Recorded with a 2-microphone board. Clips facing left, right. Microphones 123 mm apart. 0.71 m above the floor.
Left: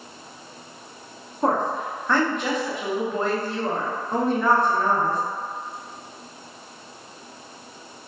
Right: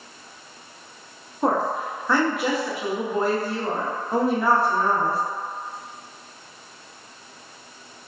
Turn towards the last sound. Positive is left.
turn(degrees=-5)  # may be behind; listen again after turning